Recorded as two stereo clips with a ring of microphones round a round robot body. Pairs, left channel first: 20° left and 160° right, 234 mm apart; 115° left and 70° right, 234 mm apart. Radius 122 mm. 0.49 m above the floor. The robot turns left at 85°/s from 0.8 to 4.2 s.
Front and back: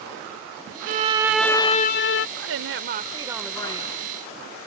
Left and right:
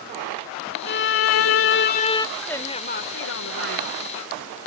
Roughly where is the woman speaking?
Behind right.